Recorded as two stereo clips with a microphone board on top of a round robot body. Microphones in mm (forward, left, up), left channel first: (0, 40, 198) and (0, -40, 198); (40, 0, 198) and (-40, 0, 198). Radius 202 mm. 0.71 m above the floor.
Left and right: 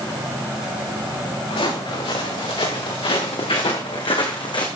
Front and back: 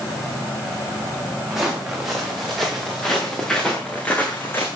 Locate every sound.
1.5 s footsteps: 95° left, 6.5 m; by 4.7 s 60° left, 3 m